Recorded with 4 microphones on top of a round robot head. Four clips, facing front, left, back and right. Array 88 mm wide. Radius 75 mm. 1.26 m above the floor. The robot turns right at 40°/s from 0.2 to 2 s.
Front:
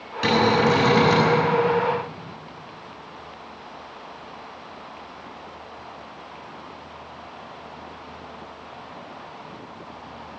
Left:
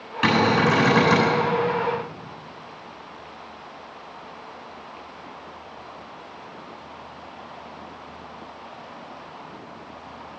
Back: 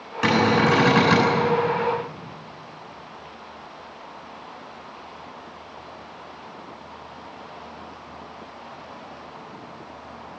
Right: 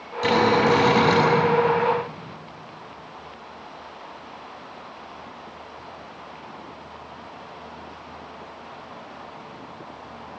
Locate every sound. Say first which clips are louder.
0.2 s a cupboard door: right 1 dB, even; 120° left, 7.5 m; by 1.3 s 160° left, 7.5 m